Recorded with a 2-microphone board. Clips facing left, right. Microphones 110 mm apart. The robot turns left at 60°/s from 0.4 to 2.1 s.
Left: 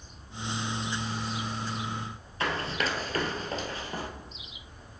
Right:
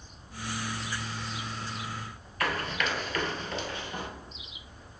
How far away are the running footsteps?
About 1.2 m.